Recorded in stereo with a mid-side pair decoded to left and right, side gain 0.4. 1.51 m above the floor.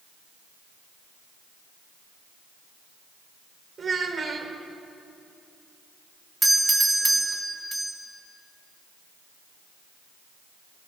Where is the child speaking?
45° right, 3.5 m.